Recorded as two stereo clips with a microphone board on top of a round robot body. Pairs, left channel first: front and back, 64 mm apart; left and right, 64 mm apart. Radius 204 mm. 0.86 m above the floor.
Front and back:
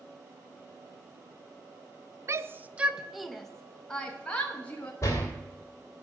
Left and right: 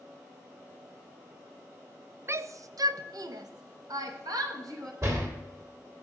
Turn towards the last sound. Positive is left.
turn(degrees=-45)